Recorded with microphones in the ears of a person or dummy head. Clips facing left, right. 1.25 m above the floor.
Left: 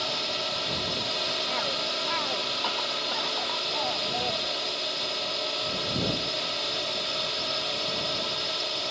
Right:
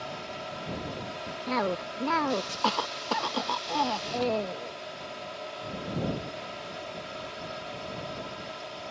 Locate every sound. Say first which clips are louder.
0.0 s a drone: left 4 dB; 75° left (ahead or behind)
1.5 s a cough: right 3 dB; 85° right